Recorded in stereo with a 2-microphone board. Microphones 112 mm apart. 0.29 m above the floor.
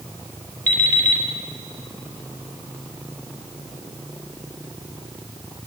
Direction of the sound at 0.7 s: 35° right (ahead or behind).